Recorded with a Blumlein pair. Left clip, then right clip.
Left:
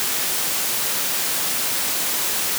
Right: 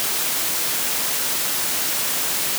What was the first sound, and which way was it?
Only background noise.